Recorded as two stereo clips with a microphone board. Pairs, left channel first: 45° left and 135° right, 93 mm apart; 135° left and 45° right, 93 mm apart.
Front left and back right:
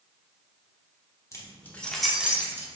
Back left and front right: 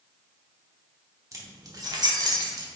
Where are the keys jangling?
Straight ahead, 0.8 m; by 2.7 s 80° right, 0.8 m.